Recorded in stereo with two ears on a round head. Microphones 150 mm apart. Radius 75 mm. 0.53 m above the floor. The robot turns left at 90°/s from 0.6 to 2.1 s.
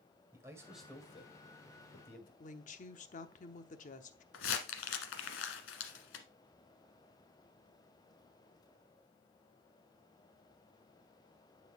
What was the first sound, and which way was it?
A man speaking, 15° right (ahead or behind).